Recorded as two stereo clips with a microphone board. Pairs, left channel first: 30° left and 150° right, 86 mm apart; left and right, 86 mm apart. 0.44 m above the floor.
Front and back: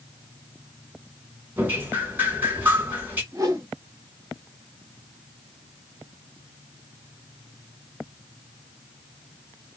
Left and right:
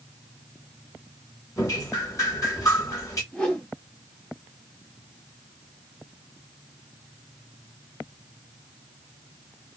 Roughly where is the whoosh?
Behind.